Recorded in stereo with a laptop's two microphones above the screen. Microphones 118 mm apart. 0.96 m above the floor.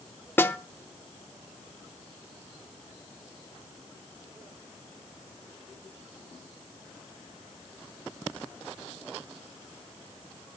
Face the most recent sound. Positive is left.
turn(degrees=20)  # may be behind; listen again after turning